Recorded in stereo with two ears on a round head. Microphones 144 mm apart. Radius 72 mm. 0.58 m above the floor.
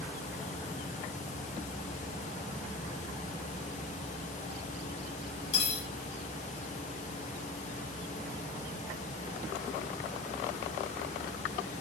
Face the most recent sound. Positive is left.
turn(degrees=70)  # may be behind; listen again after turning